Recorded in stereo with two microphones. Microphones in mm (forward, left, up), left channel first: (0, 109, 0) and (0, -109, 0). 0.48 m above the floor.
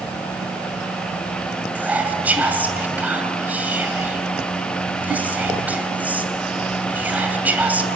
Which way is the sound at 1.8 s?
10° right (ahead or behind).